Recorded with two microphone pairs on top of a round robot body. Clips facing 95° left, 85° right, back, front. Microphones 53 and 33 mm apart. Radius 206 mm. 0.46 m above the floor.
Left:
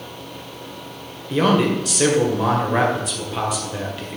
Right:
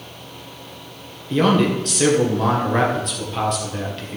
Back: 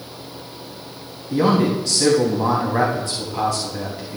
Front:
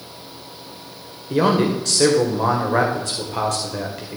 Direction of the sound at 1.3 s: 10° left.